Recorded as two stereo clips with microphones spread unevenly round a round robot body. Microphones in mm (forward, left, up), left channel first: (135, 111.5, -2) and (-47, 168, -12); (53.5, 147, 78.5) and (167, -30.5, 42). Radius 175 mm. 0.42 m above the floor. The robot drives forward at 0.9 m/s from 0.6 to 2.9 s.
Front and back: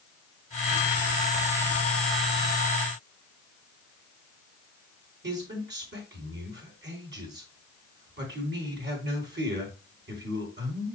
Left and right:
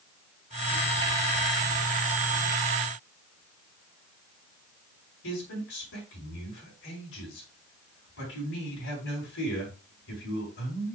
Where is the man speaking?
150° left, 3.5 m.